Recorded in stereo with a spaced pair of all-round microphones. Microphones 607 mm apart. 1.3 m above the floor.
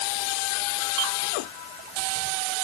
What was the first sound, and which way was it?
Only background noise.